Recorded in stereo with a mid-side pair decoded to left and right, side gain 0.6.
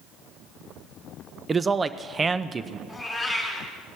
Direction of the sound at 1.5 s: 25° right.